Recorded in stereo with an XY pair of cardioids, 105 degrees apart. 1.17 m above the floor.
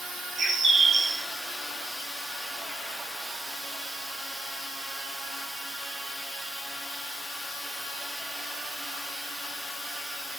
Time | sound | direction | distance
0.4 | a bird | 45° right | 2.5 m